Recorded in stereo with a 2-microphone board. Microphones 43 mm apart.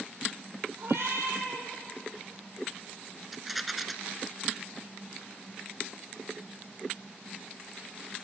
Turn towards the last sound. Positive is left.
turn(degrees=0)  # may be behind; listen again after turning